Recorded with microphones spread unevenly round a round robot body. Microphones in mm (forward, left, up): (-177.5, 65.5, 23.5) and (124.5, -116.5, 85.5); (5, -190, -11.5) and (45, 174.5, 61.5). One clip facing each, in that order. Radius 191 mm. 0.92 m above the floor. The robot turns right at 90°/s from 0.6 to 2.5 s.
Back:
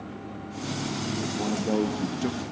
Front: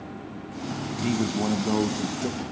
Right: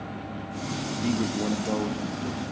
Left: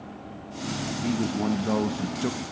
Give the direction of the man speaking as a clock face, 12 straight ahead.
1 o'clock.